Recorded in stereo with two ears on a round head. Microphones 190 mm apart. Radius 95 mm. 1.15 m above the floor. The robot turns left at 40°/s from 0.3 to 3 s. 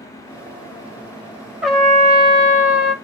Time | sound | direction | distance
1.6 | a trumpet | straight behind | 0.6 m